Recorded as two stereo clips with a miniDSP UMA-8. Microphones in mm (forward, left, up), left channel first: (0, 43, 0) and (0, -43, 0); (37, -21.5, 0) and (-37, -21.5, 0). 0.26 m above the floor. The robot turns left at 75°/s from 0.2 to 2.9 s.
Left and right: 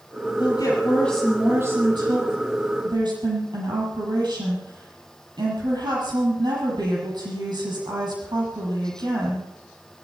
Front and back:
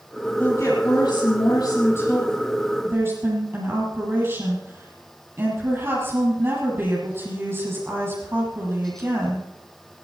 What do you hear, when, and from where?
0.4 s a woman speaking: 65° left, 7.5 m; by 9.4 s 120° right, 7.5 m